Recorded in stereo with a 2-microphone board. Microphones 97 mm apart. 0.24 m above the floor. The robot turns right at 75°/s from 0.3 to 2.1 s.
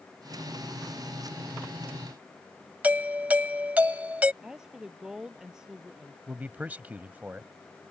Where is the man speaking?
15° right (ahead or behind).